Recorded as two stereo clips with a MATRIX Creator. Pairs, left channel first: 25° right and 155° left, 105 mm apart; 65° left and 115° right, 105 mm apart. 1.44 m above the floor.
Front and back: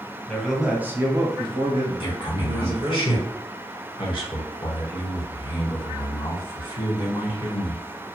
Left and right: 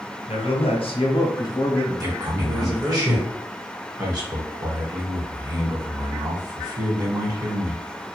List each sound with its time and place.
0.3 s a man speaking: 60° left, 0.8 m; by 3.0 s 160° left, 1.2 m
2.0 s a man speaking: 60° right, 1.1 m